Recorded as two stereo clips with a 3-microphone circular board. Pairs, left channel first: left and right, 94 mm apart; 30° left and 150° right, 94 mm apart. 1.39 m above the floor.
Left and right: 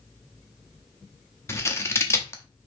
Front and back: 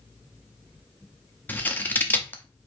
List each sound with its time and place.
1.5 s scissors: 75° left, 0.9 m